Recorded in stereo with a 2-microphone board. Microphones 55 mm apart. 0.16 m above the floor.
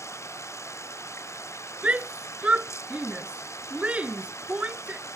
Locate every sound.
0.0 s running water: 60° left (ahead or behind)
1.8 s a shout: 25° right (ahead or behind)